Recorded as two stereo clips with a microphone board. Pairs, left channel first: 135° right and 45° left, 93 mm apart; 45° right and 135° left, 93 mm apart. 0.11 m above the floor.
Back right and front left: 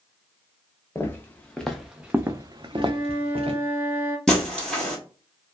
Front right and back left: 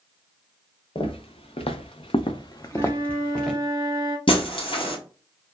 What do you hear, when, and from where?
0.9 s footsteps: 65° right, 0.9 m; by 3.6 s 45° left, 0.8 m
2.7 s a flute: 110° left, 1.0 m
4.3 s breaking glass: 50° right, 1.4 m